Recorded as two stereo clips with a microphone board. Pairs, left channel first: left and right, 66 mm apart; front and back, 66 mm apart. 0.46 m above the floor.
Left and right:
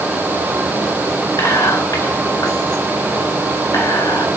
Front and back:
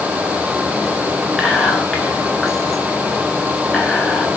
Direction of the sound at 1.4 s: 85° left.